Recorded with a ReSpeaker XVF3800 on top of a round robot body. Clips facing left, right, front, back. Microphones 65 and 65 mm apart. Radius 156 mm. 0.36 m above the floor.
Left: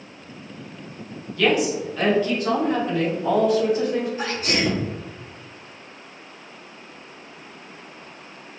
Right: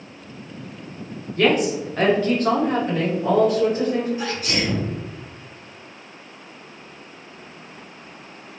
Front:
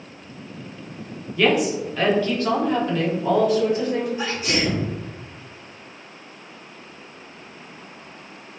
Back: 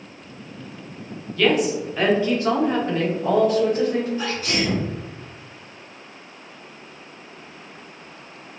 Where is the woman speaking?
70° right, 1.3 m; by 4.1 s 140° right, 2.5 m.